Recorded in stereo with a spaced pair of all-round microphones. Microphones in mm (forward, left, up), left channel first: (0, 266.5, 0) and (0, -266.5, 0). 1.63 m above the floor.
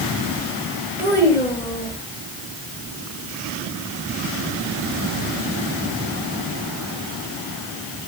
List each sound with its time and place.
1.0 s a child speaking: 5° right (ahead or behind), 8 m